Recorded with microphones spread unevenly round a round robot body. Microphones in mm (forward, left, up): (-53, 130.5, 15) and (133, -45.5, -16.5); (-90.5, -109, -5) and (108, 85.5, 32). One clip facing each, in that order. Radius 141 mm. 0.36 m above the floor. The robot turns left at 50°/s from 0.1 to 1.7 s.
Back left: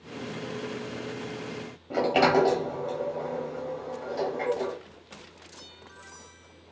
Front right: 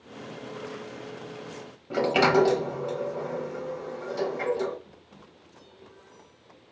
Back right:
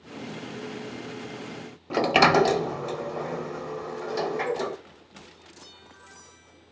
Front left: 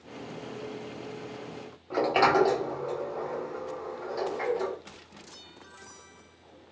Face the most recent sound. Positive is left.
turn(degrees=-120)